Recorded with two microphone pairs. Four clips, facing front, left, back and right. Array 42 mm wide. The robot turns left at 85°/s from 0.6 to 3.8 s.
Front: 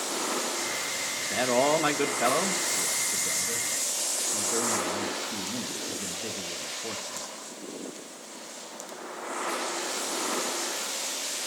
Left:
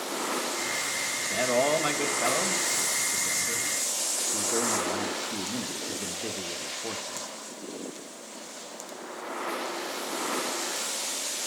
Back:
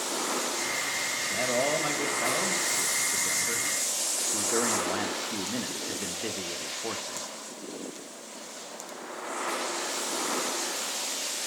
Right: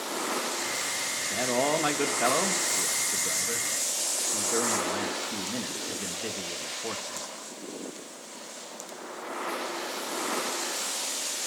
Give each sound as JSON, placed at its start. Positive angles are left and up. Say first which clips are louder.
{"t": 1.2, "sound": "a man speaking", "louder": "left 2 dB, front 4 dB", "azimuth_deg": 40, "distance_m": 1.1}